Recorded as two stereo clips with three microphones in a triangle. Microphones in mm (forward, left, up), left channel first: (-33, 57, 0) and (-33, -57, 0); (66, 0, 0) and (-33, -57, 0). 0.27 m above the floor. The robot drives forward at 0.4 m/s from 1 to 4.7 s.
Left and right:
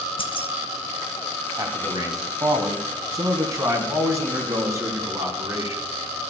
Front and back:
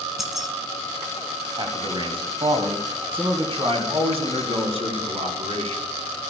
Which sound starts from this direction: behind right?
A man speaking, at 1.6 s.